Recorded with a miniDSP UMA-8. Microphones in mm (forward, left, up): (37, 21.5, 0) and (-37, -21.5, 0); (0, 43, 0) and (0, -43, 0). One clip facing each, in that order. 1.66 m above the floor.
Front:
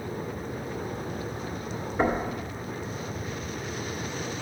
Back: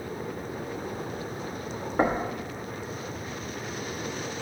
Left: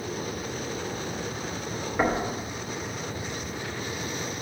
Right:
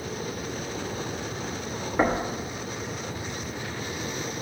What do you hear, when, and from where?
2.0 s knocking: 155° right, 1.0 m